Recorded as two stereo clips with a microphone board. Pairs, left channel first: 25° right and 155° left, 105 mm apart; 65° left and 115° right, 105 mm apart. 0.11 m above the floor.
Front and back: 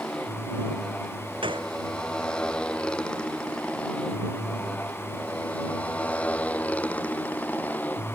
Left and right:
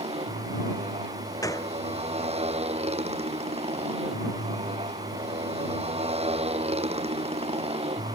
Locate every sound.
0.0 s a motorcycle: 105° right; by 8.1 s 95° right
1.4 s a gunshot: 125° left